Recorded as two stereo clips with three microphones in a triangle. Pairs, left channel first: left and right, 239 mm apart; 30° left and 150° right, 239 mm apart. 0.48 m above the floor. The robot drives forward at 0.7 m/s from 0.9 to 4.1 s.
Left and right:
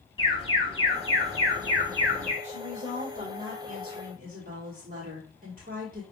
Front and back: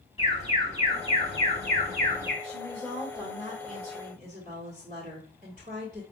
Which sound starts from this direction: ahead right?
A woman speaking, at 2.4 s.